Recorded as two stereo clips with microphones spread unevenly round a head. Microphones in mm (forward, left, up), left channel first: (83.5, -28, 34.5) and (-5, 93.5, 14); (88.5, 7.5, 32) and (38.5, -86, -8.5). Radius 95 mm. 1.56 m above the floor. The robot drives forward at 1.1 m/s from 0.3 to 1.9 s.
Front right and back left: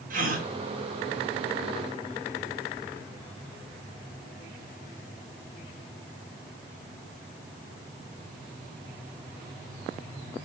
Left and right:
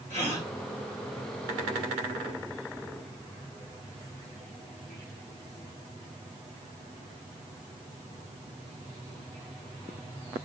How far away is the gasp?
About 3 m.